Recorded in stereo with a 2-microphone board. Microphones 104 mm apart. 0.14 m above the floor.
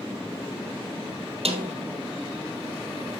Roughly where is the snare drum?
Right.